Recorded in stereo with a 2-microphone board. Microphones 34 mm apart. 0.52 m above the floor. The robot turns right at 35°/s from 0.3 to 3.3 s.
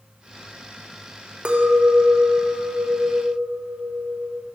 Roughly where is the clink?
Behind right.